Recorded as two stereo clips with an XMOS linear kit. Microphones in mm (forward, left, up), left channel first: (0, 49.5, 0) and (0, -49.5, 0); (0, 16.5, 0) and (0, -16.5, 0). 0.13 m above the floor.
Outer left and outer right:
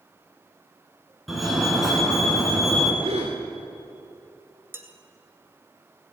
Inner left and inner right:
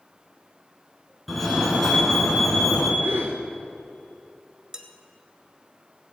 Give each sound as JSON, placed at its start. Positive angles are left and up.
{"t": 1.3, "sound": "a fire alarm", "side_deg": 0, "distance_m": 2.5}
{"t": 3.0, "sound": "a gasp", "side_deg": -85, "distance_m": 4.5}
{"t": 4.7, "sound": "dishes clattering", "side_deg": -25, "distance_m": 1.4}